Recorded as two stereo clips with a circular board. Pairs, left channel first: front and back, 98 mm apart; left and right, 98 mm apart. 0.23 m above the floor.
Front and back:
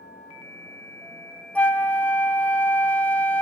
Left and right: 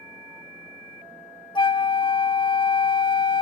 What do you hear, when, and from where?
1.6 s a flute: 75° left, 0.7 m